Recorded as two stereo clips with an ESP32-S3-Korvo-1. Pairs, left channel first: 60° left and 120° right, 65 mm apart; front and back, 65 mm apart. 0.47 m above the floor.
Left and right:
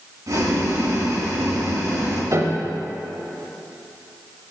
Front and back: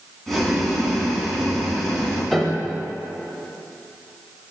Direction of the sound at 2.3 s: 90° right.